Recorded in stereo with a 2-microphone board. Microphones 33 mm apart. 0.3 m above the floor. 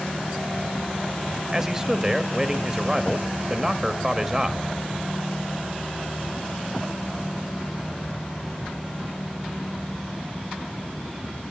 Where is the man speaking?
15° right (ahead or behind), 0.9 m.